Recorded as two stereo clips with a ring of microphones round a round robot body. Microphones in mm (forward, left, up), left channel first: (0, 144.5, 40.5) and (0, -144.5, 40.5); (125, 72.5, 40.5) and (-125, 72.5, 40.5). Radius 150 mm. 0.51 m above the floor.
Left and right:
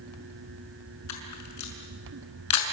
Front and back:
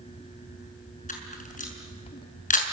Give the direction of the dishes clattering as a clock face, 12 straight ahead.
No dishes clattering in this recording.